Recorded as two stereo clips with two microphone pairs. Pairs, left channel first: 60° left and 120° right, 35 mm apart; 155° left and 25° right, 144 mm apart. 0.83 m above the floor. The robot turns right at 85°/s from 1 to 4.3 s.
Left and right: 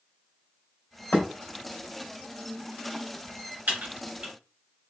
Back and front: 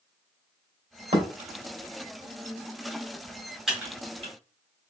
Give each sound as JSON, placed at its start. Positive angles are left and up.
{"t": 1.1, "sound": "a thud", "azimuth_deg": 20, "distance_m": 2.0}
{"t": 3.7, "sound": "typing on a keyboard", "azimuth_deg": -115, "distance_m": 1.7}